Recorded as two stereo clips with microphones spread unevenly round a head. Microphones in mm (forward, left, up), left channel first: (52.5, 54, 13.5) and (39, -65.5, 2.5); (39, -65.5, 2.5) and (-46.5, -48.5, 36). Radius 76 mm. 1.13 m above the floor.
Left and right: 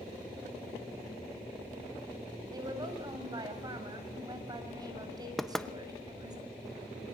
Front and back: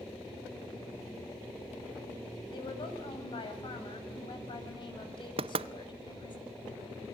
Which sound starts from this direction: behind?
Knocking, at 5.4 s.